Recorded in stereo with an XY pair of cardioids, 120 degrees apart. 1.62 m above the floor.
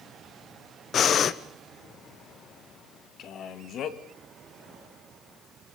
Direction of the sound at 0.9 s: 45° left.